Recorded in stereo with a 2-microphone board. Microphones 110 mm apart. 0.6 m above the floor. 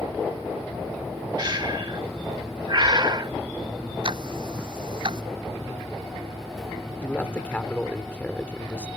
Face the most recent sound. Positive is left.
turn(degrees=10)  # may be behind; listen again after turning